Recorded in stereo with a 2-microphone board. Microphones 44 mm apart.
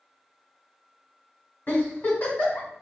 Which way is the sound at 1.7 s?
40° left (ahead or behind).